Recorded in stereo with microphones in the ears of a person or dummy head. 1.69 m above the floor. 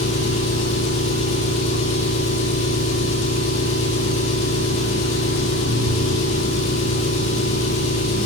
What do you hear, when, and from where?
0.0 s an engine running: 35° left (ahead or behind), 2 m